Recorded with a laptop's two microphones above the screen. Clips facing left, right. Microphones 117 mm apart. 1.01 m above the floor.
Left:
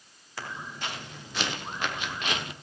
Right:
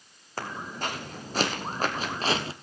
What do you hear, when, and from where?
0.4 s footsteps: 45° right (ahead or behind), 3 m; by 2.5 s 30° right (ahead or behind), 1.3 m